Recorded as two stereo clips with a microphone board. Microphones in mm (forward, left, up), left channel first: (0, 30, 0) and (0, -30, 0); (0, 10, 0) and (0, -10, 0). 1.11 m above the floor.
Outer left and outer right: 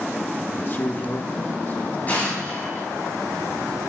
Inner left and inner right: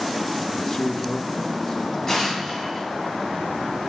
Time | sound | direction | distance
0.6 | a man speaking | 35° left (ahead or behind) | 1.3 m
2.1 | an explosion | 30° left (ahead or behind) | 5.5 m